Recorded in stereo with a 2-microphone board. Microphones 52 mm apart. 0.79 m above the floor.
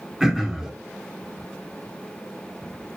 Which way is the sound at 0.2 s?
10° right (ahead or behind).